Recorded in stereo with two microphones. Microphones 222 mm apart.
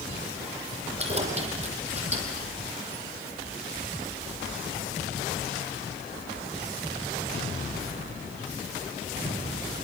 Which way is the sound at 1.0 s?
30° right (ahead or behind).